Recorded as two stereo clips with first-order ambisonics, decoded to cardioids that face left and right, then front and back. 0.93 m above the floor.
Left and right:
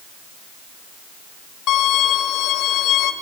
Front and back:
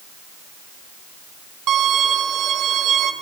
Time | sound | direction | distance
1.7 | a violin | 135° left | 2 m